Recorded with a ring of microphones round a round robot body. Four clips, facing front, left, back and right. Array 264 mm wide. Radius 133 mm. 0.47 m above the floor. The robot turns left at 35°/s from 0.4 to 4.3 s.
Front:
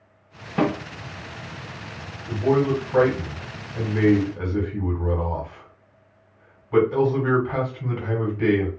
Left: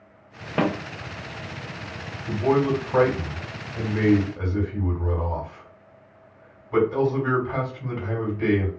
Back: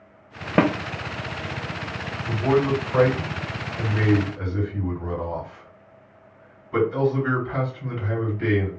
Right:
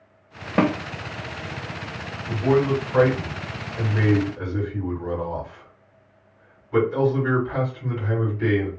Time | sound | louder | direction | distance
0.6 | a snare drum | right 3 dB, back 3 dB | 165° right | 0.5 m
2.3 | a man speaking | right 1 dB, even | 100° left | 1.8 m